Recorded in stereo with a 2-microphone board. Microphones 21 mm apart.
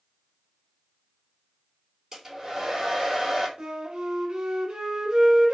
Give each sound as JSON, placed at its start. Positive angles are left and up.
{"t": 2.1, "sound": "a hair dryer", "side_deg": -15, "distance_m": 3.0}
{"t": 3.6, "sound": "a flute", "side_deg": -45, "distance_m": 1.5}